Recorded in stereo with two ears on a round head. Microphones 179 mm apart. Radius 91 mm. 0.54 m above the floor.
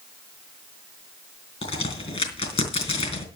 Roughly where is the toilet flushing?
I don't hear a toilet flushing.